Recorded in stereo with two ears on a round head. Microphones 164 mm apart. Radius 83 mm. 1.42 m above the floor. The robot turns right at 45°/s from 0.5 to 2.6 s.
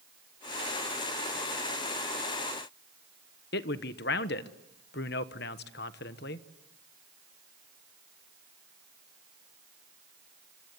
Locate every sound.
3.5 s a man speaking: 60° left (ahead or behind), 1.2 m